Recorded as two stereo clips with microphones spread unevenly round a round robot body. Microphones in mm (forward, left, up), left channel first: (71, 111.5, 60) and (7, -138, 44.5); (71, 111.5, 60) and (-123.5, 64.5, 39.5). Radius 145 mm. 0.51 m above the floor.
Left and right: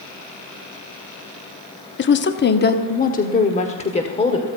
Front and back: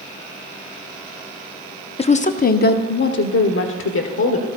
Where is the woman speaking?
65° left, 1.0 m; by 4.5 s 5° left, 1.9 m.